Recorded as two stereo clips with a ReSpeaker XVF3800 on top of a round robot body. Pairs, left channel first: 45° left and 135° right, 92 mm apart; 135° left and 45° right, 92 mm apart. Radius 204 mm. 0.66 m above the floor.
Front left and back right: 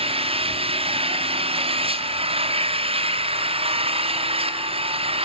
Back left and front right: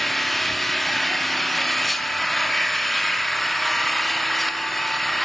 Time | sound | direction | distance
0.0 | an engine running | 135° right | 1.1 m